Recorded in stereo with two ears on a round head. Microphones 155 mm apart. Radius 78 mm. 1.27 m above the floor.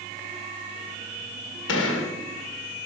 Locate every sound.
1.7 s a gunshot: 85° left, 1.9 m